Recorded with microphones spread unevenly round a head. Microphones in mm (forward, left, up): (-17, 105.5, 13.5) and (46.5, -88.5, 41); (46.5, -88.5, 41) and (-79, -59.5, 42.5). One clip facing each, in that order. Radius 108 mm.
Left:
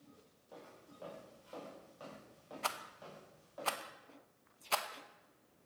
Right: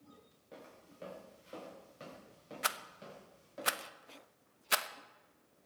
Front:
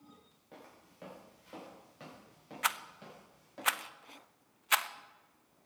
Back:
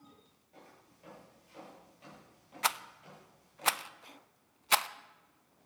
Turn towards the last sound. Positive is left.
turn(degrees=-145)